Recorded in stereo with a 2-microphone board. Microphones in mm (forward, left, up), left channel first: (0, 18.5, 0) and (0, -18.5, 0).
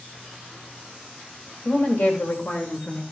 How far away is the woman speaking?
About 2.5 m.